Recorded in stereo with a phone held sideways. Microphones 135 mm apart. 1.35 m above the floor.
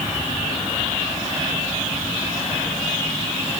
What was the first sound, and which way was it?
Only background noise.